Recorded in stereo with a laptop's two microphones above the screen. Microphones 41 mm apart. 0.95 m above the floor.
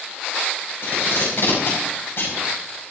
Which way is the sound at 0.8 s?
60° left (ahead or behind).